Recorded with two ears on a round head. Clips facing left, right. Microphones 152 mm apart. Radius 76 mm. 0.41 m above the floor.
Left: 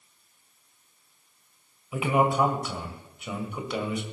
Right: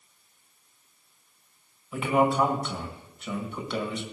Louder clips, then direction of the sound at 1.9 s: Even; 5° left (ahead or behind).